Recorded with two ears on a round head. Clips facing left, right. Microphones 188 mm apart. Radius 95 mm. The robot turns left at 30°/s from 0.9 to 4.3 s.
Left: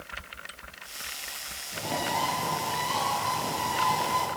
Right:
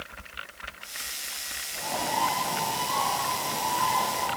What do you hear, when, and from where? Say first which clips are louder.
1.7 s a bird: even; 140° left, 9.5 m; by 4.3 s 60° left, 9.5 m